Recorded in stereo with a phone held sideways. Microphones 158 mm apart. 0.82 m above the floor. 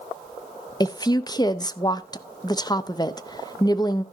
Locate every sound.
0.8 s a woman speaking: 25° left (ahead or behind), 0.6 m